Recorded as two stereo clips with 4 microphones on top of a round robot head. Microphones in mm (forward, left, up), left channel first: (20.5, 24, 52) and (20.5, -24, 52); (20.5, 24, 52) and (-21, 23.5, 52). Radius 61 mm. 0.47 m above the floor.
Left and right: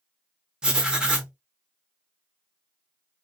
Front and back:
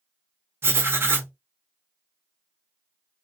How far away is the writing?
About 0.9 m.